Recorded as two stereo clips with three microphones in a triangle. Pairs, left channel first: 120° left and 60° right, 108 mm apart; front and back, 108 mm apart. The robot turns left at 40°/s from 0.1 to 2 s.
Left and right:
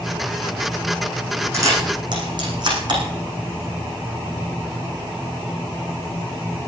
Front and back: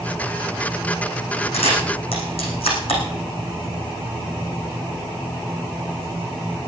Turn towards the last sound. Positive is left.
turn(degrees=-20)